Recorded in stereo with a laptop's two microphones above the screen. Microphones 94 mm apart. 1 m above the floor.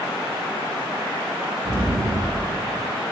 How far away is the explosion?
About 1.0 m.